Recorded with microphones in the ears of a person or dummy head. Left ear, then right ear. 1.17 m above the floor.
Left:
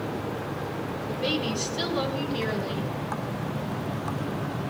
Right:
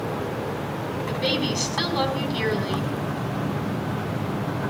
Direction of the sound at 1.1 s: 25° right (ahead or behind).